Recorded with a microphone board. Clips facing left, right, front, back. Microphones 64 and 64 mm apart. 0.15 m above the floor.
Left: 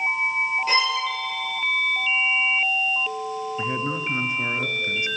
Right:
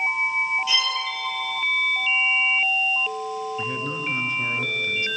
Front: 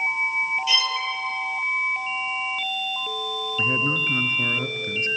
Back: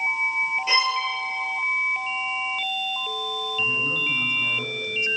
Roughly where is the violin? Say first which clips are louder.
Left 3 dB, back 3 dB; behind left.